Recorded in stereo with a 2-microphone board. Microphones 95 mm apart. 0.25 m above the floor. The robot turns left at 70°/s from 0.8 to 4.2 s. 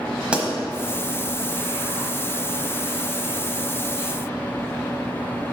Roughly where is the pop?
Centre.